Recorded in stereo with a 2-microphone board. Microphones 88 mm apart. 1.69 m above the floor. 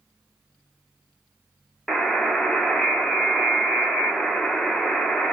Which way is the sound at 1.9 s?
5° left (ahead or behind).